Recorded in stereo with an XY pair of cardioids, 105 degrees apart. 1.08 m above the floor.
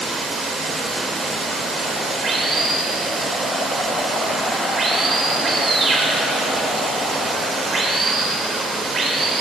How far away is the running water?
About 2.5 m.